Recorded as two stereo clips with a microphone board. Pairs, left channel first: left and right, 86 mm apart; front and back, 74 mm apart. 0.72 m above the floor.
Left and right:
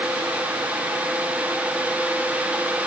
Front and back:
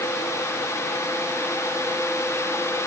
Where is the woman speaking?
No woman speaking in this recording.